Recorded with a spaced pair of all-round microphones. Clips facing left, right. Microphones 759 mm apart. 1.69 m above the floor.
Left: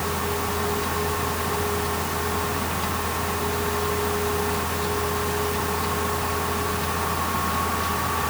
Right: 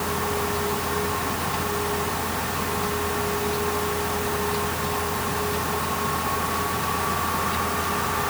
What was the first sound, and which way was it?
Only background noise.